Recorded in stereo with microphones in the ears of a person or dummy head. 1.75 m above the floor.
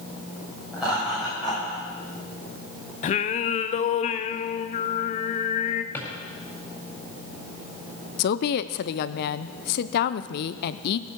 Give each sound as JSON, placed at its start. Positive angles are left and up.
{"t": 0.7, "sound": "laughter", "side_deg": -5, "distance_m": 7.0}
{"t": 3.0, "sound": "singing", "side_deg": 45, "distance_m": 0.7}
{"t": 5.9, "sound": "a drawer", "side_deg": 15, "distance_m": 4.5}
{"t": 8.2, "sound": "a woman speaking", "side_deg": 60, "distance_m": 0.7}